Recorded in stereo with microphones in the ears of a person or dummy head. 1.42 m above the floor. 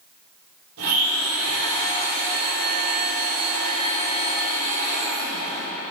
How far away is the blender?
About 2 m.